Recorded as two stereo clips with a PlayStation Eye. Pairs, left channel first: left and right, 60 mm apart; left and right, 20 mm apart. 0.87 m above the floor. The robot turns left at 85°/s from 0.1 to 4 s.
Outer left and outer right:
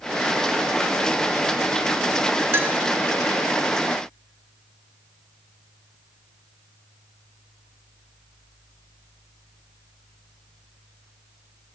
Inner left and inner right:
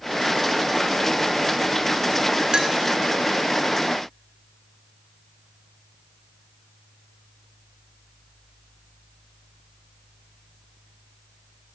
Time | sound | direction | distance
2.5 | a clink | 45° right (ahead or behind) | 1.5 m